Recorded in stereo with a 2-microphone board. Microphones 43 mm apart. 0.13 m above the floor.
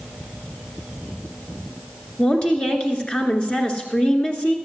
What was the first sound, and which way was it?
A woman speaking, 25° left (ahead or behind).